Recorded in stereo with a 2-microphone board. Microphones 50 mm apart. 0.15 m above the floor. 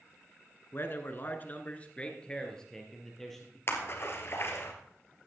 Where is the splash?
50° left (ahead or behind), 2 m.